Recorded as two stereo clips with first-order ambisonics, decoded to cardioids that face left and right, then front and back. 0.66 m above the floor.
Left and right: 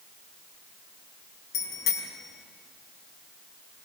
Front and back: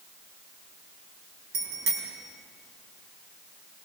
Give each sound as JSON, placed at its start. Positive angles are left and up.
{"t": 1.5, "sound": "a bicycle bell", "azimuth_deg": 140, "distance_m": 4.0}